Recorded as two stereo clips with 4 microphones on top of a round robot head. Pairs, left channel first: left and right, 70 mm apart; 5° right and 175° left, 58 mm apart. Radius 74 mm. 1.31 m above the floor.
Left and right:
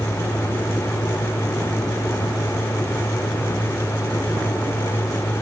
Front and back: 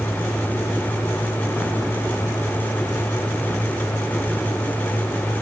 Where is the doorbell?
No doorbell in this recording.